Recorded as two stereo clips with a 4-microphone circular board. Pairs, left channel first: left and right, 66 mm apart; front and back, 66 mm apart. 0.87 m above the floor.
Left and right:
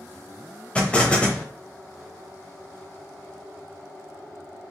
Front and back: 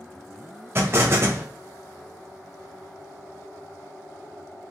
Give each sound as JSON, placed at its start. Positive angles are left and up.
{"t": 0.8, "sound": "an explosion", "azimuth_deg": 155, "distance_m": 0.9}